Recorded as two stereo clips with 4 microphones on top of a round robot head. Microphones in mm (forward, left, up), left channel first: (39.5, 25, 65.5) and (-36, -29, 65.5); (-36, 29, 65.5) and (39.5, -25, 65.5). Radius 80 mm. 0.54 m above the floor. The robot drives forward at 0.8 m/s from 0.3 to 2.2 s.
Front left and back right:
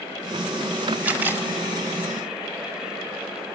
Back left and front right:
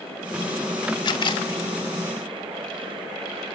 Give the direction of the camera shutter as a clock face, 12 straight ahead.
7 o'clock.